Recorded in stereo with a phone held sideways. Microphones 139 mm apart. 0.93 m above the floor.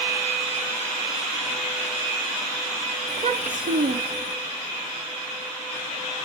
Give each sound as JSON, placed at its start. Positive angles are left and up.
{"t": 3.1, "sound": "a child speaking", "side_deg": -35, "distance_m": 0.9}